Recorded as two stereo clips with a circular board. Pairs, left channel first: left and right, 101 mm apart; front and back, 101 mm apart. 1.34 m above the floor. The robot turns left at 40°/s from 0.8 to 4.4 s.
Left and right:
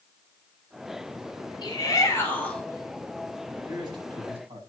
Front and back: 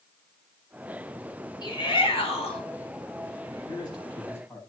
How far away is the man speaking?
About 8.5 m.